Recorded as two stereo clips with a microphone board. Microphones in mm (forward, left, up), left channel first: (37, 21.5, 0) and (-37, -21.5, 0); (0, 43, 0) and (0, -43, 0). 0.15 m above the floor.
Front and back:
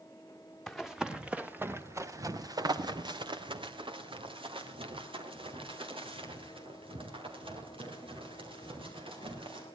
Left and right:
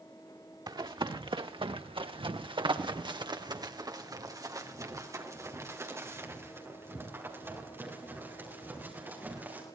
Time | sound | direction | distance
0.7 | running footsteps | 55° right | 1.6 m